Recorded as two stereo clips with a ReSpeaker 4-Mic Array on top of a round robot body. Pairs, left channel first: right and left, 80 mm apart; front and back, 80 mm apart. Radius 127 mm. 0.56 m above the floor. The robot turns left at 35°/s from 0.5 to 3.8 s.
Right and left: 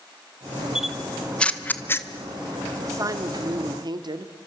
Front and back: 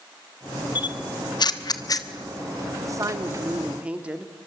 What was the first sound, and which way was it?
A camera shutter, 10° left.